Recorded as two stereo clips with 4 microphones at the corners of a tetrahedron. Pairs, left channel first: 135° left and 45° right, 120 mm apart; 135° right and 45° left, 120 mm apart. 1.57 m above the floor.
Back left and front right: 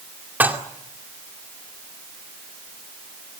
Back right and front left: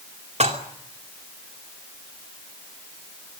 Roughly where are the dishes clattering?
Ahead left.